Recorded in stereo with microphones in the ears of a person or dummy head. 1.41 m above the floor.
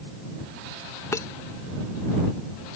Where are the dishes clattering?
15° left (ahead or behind).